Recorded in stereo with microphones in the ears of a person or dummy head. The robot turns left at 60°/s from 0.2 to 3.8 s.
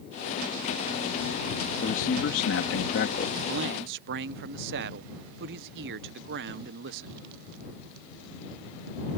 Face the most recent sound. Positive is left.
turn(degrees=-60)  # may be behind; listen again after turning